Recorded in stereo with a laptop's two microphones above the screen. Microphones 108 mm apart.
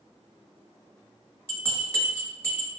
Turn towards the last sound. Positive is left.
turn(degrees=20)  # may be behind; listen again after turning